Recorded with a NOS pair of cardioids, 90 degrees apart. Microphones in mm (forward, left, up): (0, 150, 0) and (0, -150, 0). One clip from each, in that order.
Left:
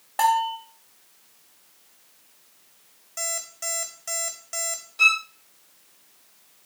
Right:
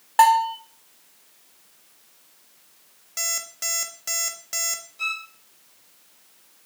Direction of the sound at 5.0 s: 50° left.